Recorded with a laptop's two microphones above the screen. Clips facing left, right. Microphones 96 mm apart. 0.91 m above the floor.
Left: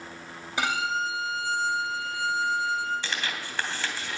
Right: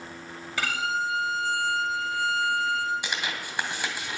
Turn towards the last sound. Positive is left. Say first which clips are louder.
# right 1 dB
turn(degrees=-15)  # may be behind; listen again after turning